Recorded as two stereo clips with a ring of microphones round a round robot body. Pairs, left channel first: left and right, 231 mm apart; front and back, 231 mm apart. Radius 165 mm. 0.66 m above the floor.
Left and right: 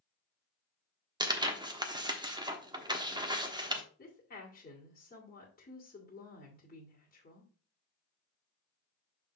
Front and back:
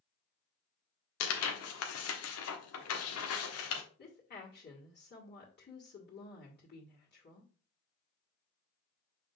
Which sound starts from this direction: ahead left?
A woman speaking, at 4.0 s.